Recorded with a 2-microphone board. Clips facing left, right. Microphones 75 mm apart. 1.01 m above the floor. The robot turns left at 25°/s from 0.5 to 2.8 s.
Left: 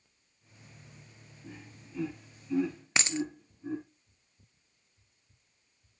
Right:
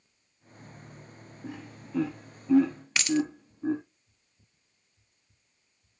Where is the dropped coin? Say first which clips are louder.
Right 6 dB; 25° left (ahead or behind), 0.6 m.